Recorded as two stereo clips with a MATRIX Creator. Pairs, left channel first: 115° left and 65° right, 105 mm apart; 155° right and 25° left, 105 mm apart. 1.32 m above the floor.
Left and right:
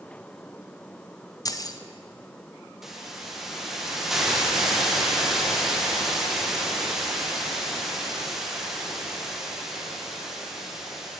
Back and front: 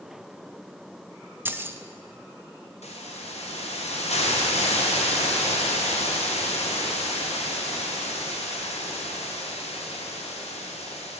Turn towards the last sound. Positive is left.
turn(degrees=-155)